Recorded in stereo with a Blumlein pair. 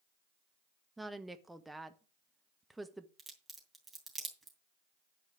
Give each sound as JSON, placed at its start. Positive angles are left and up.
{"t": 1.0, "sound": "a woman speaking", "azimuth_deg": -5, "distance_m": 0.8}
{"t": 3.2, "sound": "a crack", "azimuth_deg": -10, "distance_m": 3.0}